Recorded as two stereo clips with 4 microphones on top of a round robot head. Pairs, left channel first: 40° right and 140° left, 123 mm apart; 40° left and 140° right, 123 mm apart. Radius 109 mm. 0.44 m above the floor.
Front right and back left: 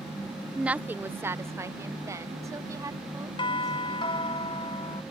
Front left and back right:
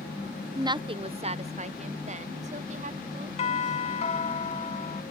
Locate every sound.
0.6 s a woman speaking: 150° right; by 4.3 s 160° right
3.4 s a doorbell: 5° left